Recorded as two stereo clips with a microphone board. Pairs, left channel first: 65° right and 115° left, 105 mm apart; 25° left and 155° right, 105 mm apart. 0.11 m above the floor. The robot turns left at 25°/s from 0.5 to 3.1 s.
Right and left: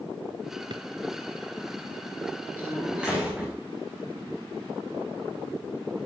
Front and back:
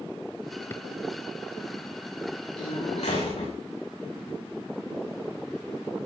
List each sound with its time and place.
0.7 s a drawer: 85° left, 0.7 m; by 0.9 s 80° left, 0.7 m
2.6 s a door slam: 45° left, 8.5 m; by 3.5 s 30° left, 8.5 m